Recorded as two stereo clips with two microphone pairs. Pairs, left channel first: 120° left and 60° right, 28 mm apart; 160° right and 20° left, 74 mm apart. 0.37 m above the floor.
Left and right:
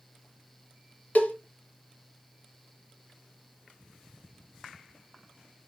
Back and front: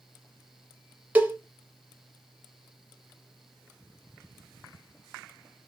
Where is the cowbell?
90° left, 0.9 m.